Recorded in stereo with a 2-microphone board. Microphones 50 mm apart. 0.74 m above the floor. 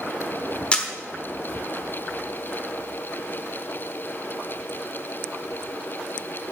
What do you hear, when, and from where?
0.7 s a camera shutter: 25° left (ahead or behind), 1.1 m